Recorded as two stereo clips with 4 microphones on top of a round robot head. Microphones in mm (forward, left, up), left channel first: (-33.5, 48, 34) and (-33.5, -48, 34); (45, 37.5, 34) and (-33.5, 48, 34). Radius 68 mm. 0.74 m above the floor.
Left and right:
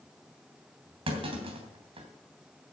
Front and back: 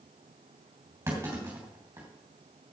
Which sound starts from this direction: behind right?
A clunk, at 1.1 s.